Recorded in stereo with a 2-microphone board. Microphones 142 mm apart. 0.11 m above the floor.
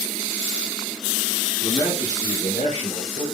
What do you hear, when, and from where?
1.6 s a man speaking: 10° left (ahead or behind), 1.1 m; by 3.2 s 50° left (ahead or behind), 2 m